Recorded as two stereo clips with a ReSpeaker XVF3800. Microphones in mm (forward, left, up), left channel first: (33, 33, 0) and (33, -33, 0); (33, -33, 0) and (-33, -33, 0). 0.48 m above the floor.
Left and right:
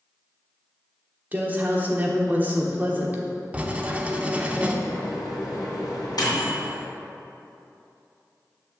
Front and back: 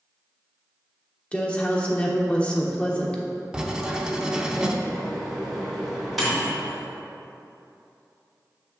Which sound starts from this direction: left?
A microwave, at 4.8 s.